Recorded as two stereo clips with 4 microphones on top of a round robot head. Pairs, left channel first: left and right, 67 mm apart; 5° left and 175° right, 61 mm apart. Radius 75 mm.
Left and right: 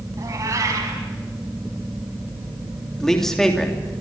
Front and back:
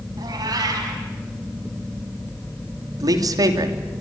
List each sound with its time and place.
0.2 s a cat meowing: 145° right, 4.5 m
3.0 s a man speaking: 175° left, 3 m